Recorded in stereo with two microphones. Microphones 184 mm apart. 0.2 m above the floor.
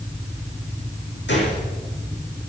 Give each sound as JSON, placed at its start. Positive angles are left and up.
{"t": 1.3, "sound": "a gunshot", "side_deg": 75, "distance_m": 9.5}